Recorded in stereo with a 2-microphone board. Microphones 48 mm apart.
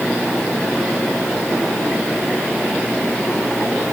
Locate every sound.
Only background noise.